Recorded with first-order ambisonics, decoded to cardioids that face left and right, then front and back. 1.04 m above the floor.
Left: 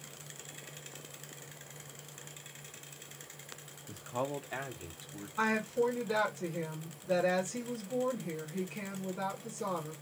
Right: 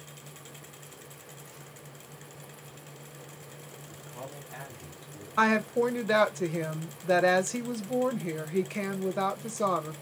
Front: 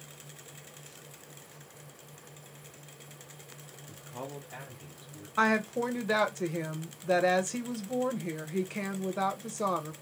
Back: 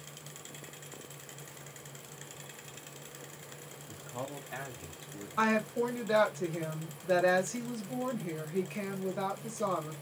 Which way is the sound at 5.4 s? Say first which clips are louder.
Right 6 dB, front 2 dB; 70° right.